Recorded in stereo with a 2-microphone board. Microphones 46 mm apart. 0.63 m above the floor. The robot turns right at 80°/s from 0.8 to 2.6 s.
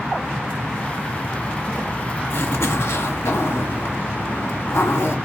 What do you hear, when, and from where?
2.3 s a zipper: 65° left (ahead or behind), 1.5 m; by 5.2 s 80° left, 1.5 m